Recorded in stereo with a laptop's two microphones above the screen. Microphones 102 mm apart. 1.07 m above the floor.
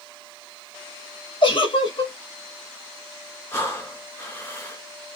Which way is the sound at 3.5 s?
30° left (ahead or behind).